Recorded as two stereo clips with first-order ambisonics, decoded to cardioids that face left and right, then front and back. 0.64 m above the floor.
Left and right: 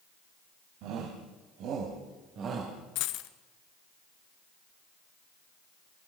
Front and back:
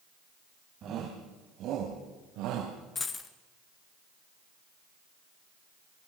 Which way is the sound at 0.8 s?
125° right.